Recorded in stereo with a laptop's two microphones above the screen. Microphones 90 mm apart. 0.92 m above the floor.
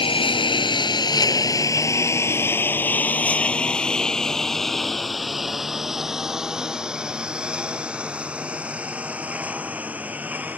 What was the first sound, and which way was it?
A lawn mower, 65° left (ahead or behind).